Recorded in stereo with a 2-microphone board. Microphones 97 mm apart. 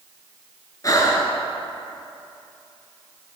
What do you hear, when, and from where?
0.8 s breathing: 40° left (ahead or behind), 0.8 m